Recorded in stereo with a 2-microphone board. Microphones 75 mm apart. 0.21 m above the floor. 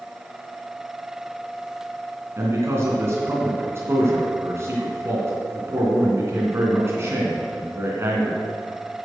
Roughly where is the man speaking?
Right.